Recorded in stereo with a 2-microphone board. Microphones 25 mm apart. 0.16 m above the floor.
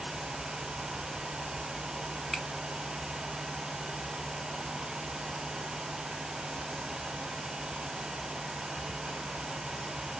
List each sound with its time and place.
2.3 s a finger snap: 5° right (ahead or behind), 0.8 m